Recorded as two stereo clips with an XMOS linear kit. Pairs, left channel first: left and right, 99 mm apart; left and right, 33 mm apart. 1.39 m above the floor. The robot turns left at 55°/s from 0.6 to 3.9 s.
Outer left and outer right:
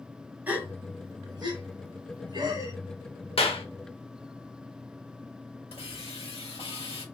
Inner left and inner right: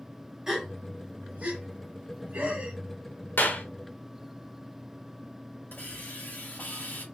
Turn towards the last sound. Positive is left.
turn(degrees=75)  # may be behind; listen again after turning